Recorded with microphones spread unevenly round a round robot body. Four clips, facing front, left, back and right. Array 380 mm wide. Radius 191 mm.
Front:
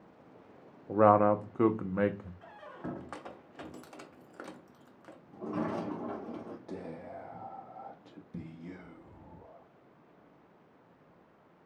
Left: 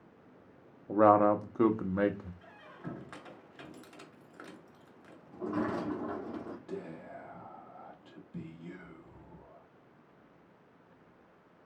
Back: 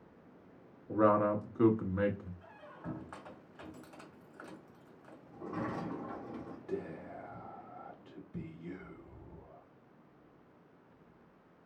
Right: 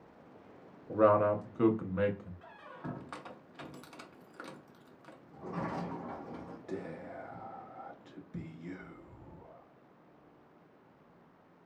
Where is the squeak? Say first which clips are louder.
Right 2 dB, front 4 dB; 5° right, 0.8 m.